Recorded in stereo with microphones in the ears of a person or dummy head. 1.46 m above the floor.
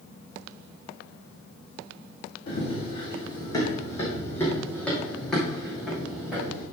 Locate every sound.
2.5 s running footsteps: 35° left (ahead or behind), 3 m; by 6.6 s 5° right (ahead or behind), 3.5 m